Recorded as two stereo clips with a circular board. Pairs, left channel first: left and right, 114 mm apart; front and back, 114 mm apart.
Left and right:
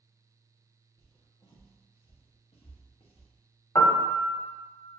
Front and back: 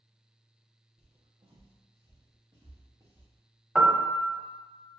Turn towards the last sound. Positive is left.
turn(degrees=100)